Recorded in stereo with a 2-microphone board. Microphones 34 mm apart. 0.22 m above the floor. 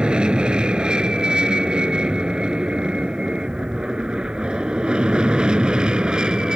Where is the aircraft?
30° right (ahead or behind); by 6.6 s 25° right (ahead or behind).